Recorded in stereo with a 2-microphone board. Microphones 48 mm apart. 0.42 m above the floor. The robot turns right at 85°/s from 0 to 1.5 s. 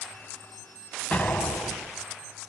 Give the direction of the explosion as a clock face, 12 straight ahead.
11 o'clock.